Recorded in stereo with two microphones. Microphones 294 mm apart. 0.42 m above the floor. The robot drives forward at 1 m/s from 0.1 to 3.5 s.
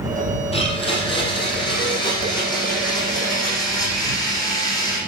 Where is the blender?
20° left (ahead or behind), 5.5 m; by 5.0 s 10° left (ahead or behind), 8.5 m.